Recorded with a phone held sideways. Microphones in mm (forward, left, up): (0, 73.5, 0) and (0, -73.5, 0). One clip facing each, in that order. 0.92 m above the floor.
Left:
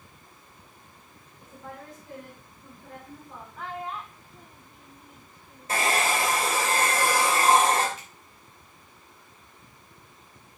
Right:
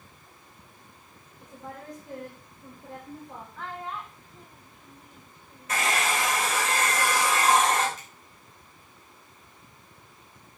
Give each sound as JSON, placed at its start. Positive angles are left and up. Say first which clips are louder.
{"t": 1.4, "sound": "a woman speaking", "louder": "right 1 dB", "side_deg": -15, "distance_m": 3.0}
{"t": 3.6, "sound": "a child speaking", "louder": "left 2 dB", "side_deg": 5, "distance_m": 1.1}
{"t": 5.7, "sound": "a hair dryer", "louder": "left 2 dB", "side_deg": 30, "distance_m": 3.0}
{"t": 8.0, "sound": "a finger snap", "louder": "left 1 dB", "side_deg": -45, "distance_m": 6.0}